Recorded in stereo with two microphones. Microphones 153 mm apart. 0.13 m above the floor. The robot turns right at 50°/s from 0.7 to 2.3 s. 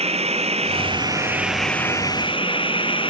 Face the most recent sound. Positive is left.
turn(degrees=35)